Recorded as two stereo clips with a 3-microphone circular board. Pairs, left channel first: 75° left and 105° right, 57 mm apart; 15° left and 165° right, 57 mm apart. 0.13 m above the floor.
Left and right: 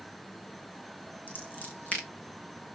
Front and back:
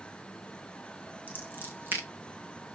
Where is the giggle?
No giggle in this recording.